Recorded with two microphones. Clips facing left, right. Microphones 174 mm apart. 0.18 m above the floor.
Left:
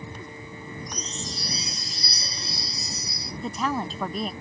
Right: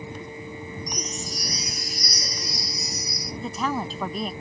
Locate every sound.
0.9 s a chime: 25° left (ahead or behind)
3.4 s a woman speaking: centre (ahead or behind)